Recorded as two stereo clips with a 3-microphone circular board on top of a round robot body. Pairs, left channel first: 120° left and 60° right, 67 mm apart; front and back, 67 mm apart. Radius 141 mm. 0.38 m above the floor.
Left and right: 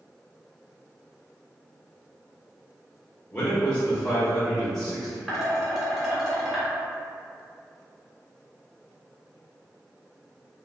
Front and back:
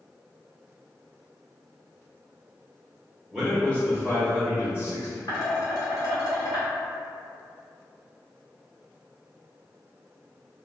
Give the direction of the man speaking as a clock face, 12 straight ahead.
9 o'clock.